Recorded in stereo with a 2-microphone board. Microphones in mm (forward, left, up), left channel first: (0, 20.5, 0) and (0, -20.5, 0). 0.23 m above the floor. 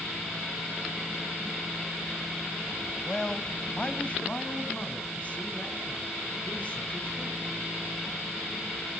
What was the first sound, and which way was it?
A man speaking, 15° left (ahead or behind).